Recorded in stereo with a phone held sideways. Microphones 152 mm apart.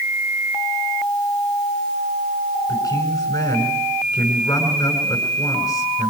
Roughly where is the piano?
No piano in this recording.